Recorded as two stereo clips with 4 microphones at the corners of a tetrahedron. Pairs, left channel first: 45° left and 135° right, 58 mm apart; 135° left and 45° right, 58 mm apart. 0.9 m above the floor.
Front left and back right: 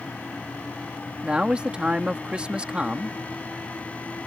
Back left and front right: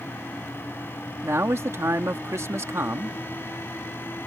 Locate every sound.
1.2 s a man speaking: 70° right